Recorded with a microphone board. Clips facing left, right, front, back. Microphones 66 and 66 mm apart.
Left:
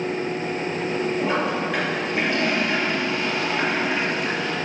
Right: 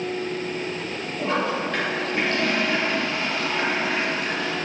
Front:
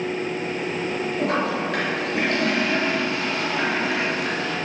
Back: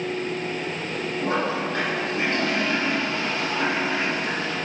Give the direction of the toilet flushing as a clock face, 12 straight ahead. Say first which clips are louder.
Left 1 dB, front 1 dB; 12 o'clock.